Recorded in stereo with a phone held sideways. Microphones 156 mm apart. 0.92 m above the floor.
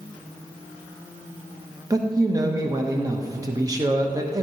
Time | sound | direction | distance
1.9 | a man speaking | 25° right (ahead or behind) | 0.8 m